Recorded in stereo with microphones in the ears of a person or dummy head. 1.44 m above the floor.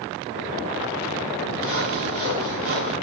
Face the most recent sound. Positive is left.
turn(degrees=-70)  # may be behind; listen again after turning